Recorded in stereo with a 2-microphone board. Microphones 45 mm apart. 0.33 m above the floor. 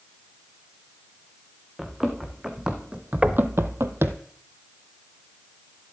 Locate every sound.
1.8 s running footsteps: 10° right (ahead or behind), 1.9 m; by 4.2 s 50° right (ahead or behind), 0.8 m
3.2 s knocking: 25° right (ahead or behind), 0.6 m